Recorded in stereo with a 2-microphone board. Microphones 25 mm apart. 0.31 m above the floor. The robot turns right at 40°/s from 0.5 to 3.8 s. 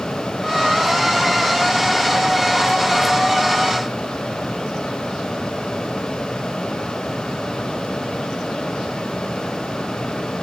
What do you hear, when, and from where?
Only background noise.